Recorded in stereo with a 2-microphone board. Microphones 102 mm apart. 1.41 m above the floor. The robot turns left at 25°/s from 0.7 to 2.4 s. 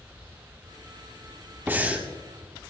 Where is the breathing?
20° right (ahead or behind), 2 m; by 2.1 s 10° right (ahead or behind), 2 m.